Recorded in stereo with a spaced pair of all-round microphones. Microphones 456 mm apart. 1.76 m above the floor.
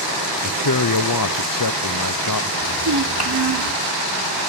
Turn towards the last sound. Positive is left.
turn(degrees=-55)  # may be behind; listen again after turning